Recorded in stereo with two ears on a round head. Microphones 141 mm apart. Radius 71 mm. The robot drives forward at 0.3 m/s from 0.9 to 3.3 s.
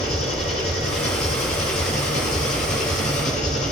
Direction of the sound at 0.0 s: 45° left (ahead or behind).